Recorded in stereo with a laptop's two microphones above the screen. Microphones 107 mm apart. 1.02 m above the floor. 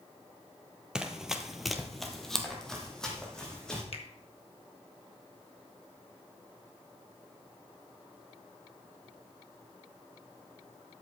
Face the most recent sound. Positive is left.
turn(degrees=60)  # may be behind; listen again after turning